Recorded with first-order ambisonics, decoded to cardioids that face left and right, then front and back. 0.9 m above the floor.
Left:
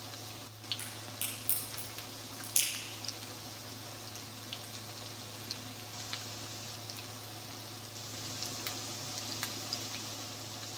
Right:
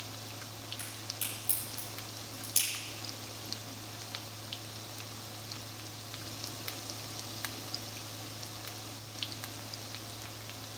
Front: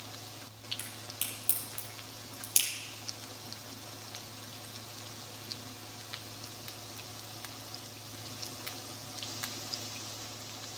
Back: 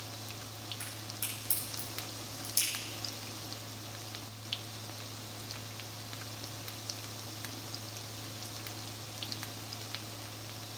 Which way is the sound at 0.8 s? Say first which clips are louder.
Right 1 dB, front 1 dB; 10° left.